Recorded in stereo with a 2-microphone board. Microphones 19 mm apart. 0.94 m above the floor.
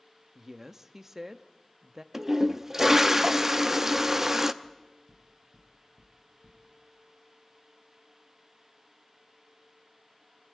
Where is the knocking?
55° right (ahead or behind), 6 m.